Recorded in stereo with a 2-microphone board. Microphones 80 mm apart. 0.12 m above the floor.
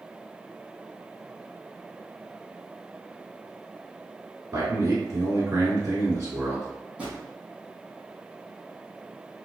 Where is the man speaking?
35° right (ahead or behind), 1.3 m.